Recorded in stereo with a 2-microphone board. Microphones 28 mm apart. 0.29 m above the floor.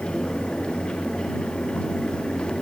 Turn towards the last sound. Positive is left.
No sound to turn to.